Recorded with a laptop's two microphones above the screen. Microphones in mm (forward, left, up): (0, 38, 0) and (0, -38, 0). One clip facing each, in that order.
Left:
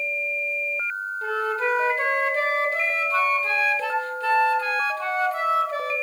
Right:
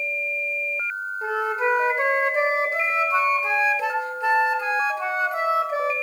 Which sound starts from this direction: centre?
A flute, at 1.2 s.